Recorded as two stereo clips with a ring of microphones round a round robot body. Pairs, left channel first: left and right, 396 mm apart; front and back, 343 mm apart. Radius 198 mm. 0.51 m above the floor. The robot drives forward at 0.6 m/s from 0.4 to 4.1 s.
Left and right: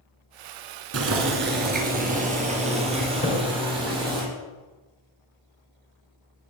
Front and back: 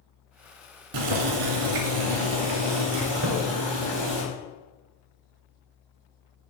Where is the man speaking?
No man speaking in this recording.